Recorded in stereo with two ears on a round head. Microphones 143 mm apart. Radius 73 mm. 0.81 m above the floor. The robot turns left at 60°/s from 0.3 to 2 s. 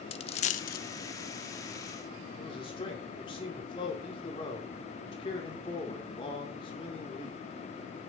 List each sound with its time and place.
0.1 s a dropped coin: 40° left (ahead or behind), 0.7 m; by 0.8 s 65° left (ahead or behind), 0.7 m
2.4 s a man speaking: 30° left (ahead or behind), 2 m